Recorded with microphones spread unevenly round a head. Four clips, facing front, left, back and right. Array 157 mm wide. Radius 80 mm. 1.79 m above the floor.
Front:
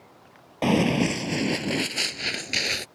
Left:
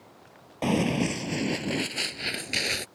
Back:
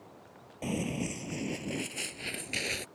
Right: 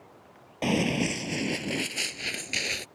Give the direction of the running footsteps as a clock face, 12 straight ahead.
12 o'clock.